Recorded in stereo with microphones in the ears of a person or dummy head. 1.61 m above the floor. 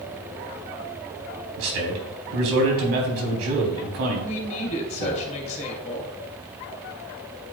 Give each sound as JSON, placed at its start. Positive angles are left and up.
{"t": 1.6, "sound": "a man speaking", "side_deg": -80, "distance_m": 3.5}
{"t": 4.2, "sound": "a woman speaking", "side_deg": 35, "distance_m": 2.5}